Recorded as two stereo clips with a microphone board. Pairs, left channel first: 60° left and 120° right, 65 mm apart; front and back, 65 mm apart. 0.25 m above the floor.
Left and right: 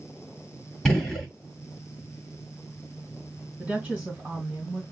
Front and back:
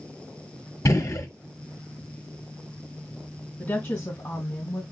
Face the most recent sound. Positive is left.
turn(degrees=-40)